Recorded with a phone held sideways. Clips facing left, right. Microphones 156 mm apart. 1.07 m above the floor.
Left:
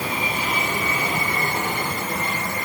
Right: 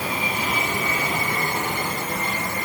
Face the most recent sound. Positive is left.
No sound to turn to.